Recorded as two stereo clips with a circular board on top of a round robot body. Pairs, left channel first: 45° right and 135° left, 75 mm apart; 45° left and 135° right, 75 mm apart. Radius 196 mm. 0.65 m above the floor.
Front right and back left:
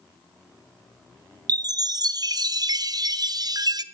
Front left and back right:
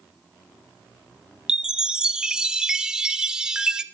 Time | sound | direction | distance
1.5 | a chime | 145° left | 0.5 m